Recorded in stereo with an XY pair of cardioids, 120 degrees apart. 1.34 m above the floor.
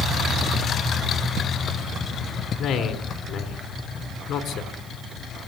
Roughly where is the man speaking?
Ahead left.